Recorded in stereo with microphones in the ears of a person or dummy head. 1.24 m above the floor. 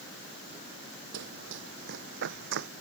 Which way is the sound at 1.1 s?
60° right (ahead or behind).